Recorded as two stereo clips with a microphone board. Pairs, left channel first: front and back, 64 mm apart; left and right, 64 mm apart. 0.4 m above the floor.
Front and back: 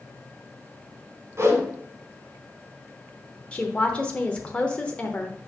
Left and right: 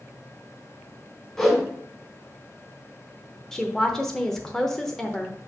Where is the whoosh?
165° left, 2 m.